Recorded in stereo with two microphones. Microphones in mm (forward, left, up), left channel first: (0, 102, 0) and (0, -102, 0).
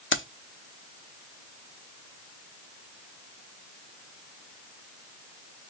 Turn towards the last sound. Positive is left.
turn(degrees=70)  # may be behind; listen again after turning